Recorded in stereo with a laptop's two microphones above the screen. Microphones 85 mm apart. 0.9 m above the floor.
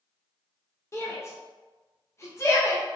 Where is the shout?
35° left (ahead or behind), 1.0 m.